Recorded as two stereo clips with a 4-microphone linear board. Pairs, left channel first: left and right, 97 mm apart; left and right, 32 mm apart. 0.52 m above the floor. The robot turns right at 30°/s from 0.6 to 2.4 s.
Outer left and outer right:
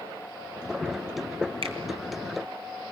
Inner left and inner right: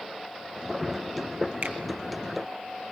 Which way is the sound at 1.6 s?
65° right (ahead or behind).